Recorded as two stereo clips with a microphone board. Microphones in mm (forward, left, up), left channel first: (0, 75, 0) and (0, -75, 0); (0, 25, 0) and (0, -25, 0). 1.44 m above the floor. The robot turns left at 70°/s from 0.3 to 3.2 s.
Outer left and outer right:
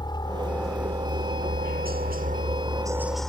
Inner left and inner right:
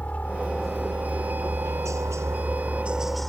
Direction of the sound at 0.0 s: 30° left (ahead or behind).